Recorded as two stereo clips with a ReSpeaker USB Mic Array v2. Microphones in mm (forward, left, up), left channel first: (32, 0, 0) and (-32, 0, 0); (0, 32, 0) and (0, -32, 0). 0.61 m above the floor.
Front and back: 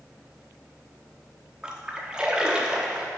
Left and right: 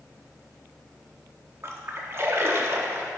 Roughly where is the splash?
Right.